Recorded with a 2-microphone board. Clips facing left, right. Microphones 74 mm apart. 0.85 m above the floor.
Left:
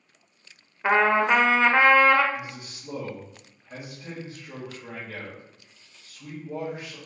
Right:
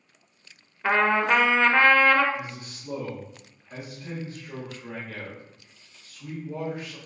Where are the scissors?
No scissors in this recording.